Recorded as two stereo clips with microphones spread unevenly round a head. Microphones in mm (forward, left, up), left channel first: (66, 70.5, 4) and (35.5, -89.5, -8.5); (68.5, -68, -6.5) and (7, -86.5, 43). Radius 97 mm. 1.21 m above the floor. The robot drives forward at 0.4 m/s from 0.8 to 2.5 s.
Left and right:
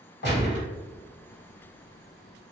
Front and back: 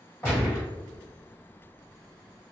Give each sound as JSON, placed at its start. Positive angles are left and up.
{"t": 0.2, "sound": "a gunshot", "azimuth_deg": 65, "distance_m": 1.5}